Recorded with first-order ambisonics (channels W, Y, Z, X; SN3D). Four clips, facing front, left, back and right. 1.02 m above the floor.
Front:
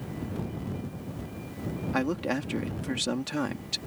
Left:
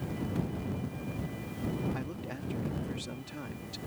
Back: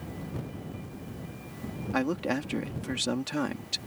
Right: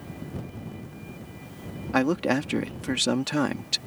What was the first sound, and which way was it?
A man speaking, 90° right.